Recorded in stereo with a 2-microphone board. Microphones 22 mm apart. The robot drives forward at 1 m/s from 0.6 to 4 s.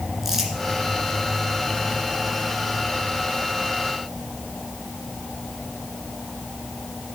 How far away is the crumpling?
About 2 m.